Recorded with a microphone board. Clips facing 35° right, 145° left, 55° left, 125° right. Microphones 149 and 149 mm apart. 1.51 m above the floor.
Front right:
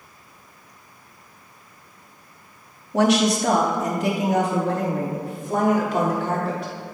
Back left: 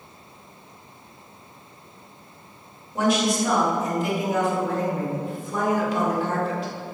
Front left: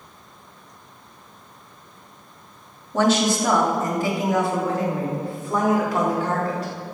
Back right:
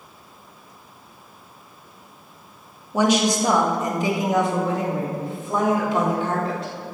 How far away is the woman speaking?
About 1.5 m.